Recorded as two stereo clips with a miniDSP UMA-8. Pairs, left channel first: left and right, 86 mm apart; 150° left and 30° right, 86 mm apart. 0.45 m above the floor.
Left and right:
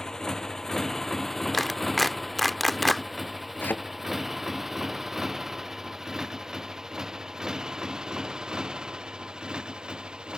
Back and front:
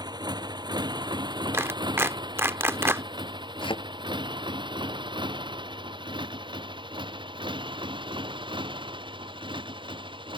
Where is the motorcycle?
5° left; by 10.4 s 10° right.